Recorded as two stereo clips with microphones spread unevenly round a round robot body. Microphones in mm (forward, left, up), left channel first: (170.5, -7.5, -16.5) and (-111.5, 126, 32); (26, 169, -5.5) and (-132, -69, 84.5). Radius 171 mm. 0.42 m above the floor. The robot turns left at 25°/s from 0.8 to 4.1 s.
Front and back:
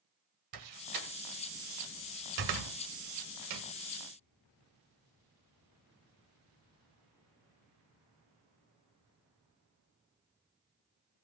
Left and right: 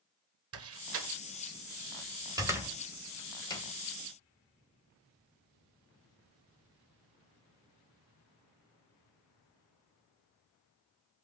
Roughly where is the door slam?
Behind.